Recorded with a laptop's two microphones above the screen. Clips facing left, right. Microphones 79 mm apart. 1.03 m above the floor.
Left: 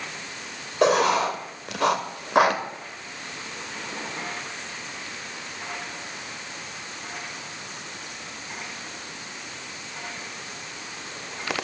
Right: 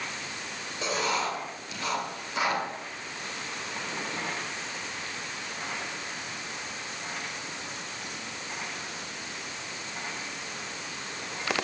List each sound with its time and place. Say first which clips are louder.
0.8 s writing: left 10 dB; 70° left (ahead or behind), 2 m